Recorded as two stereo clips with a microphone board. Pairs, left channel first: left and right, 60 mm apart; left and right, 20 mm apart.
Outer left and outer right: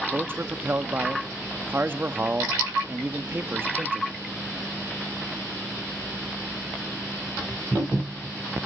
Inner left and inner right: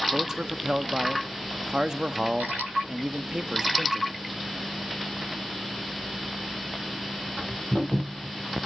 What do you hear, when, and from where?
0.1 s a man speaking: 35° right (ahead or behind), 0.9 m